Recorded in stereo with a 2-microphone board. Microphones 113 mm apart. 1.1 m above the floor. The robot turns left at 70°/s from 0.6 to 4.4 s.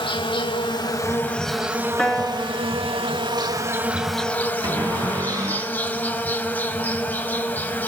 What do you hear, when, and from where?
0.0 s an insect: 65° left, 1.2 m; by 7.9 s 160° left, 1.2 m
2.0 s a piano: 10° left, 0.9 m; by 4.5 s 155° right, 0.9 m
4.6 s a cupboard door: 30° right (ahead or behind), 4.5 m